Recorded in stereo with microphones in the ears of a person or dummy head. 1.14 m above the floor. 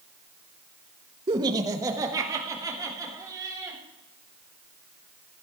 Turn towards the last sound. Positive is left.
turn(degrees=-20)  # may be behind; listen again after turning